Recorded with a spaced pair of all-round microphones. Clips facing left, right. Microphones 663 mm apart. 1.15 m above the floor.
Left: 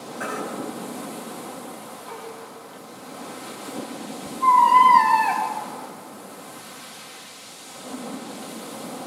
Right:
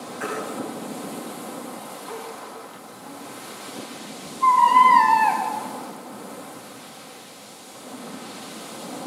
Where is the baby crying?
65° left (ahead or behind), 3.5 m.